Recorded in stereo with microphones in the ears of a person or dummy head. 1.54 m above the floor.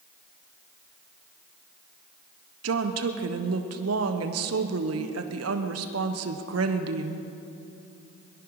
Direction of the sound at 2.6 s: 80° right.